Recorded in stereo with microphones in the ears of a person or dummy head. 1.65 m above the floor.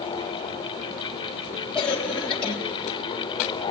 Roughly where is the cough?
Centre.